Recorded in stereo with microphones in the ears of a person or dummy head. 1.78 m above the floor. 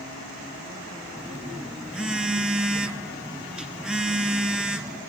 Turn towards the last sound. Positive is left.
turn(degrees=-5)  # may be behind; listen again after turning